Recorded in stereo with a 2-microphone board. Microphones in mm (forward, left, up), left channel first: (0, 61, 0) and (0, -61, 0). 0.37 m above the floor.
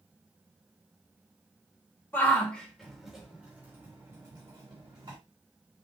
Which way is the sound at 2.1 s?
15° left (ahead or behind).